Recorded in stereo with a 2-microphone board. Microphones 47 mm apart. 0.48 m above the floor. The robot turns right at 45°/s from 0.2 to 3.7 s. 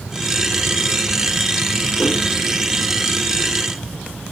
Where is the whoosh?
20° left (ahead or behind), 1.5 m; by 2.2 s 15° left (ahead or behind), 1.5 m.